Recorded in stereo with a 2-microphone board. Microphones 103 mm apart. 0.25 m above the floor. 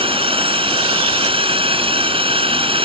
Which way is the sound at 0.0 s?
60° right (ahead or behind).